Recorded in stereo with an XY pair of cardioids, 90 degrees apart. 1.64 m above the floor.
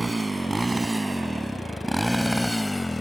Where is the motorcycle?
15° right; by 3.0 s 20° left.